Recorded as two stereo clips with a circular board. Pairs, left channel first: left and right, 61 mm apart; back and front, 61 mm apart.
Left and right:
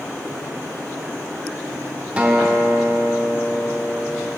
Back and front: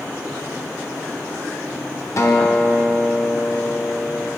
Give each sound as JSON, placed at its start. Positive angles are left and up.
{"t": 2.2, "sound": "a guitar", "azimuth_deg": -155, "distance_m": 0.6}